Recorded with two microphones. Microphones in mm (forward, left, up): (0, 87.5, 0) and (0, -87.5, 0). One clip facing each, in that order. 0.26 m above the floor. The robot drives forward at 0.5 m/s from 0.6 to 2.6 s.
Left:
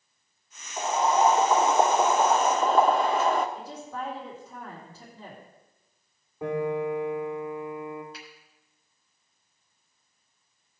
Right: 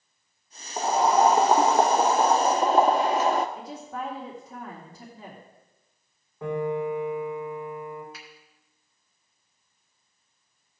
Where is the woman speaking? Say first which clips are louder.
Right 1 dB; 15° right (ahead or behind), 2.5 m.